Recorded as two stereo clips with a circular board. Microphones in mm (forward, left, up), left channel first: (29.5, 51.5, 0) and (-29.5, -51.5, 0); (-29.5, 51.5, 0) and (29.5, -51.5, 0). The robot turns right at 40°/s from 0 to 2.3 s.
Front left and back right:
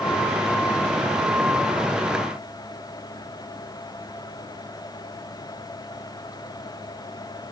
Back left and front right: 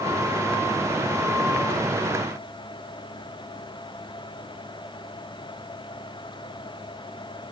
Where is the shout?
I don't hear a shout.